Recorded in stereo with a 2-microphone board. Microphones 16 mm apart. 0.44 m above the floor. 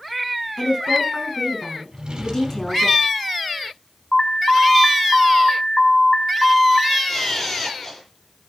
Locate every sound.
0.6 s a woman speaking: 20° left (ahead or behind), 5.5 m
1.9 s a drawer: 55° right (ahead or behind), 4 m
4.1 s an alarm: 25° left (ahead or behind), 1.9 m
7.1 s a camera shutter: 20° left (ahead or behind), 8.5 m